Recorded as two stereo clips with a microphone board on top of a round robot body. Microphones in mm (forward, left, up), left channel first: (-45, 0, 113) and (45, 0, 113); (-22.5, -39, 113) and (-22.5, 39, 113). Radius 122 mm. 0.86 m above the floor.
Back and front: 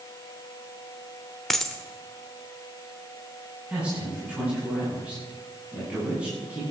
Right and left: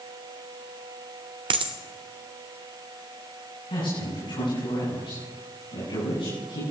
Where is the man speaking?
80° right, 9.5 m.